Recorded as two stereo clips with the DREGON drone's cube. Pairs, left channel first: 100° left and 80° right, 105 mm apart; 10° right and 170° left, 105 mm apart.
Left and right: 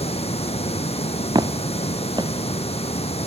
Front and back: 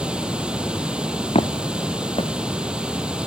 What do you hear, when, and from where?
0.0 s running water: 90° left, 2.5 m
1.4 s footsteps: 30° right, 1.5 m